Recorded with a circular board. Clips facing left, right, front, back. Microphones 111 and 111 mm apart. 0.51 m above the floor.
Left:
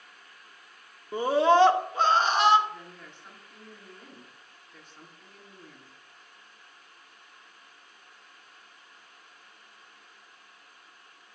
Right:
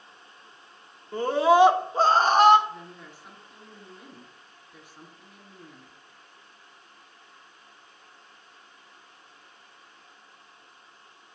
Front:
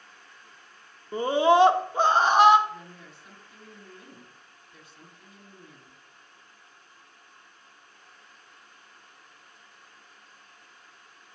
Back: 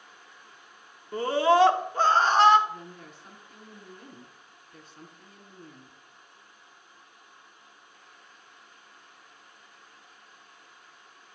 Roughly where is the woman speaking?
Behind.